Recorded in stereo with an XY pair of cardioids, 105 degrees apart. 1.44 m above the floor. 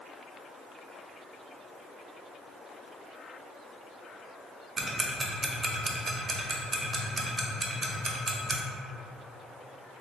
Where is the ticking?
30° right, 0.5 m.